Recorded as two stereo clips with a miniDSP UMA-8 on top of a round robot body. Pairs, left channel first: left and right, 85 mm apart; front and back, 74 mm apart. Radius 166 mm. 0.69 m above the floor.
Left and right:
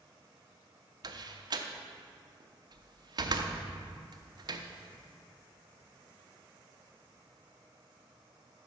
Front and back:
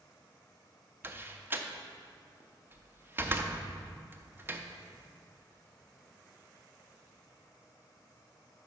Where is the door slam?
120° right, 0.6 m.